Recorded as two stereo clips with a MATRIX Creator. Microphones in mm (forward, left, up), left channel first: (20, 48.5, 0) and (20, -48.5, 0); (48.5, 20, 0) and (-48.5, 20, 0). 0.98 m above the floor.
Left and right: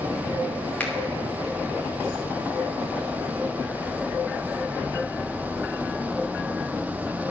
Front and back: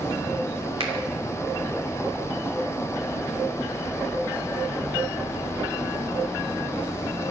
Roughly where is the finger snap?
Behind.